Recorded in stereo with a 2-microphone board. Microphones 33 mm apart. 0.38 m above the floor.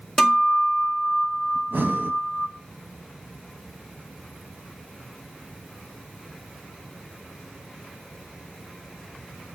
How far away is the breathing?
About 0.8 m.